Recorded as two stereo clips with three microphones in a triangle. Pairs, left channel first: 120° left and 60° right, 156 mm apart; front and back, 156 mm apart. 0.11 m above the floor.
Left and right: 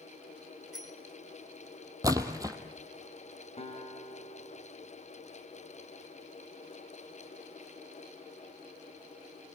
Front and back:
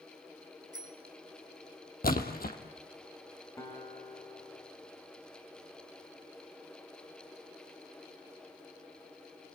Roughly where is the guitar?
Left.